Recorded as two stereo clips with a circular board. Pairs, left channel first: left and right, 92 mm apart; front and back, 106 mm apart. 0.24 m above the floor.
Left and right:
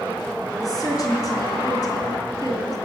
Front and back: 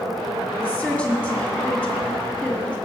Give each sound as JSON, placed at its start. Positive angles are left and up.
{"t": 0.6, "sound": "a woman speaking", "azimuth_deg": 75, "distance_m": 1.9}